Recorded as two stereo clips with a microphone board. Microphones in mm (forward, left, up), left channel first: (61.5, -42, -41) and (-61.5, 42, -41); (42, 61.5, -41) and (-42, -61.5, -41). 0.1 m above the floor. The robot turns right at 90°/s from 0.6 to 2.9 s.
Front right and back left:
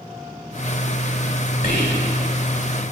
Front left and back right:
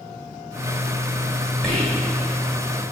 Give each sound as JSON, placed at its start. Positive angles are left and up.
{"t": 1.6, "sound": "whispering", "azimuth_deg": -30, "distance_m": 5.0}